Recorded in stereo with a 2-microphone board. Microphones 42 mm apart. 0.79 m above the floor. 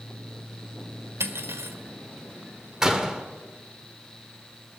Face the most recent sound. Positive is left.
turn(degrees=-15)  # may be behind; listen again after turning